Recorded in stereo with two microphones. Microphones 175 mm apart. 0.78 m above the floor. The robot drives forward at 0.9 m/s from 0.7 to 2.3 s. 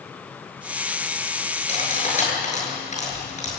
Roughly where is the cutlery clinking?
Left.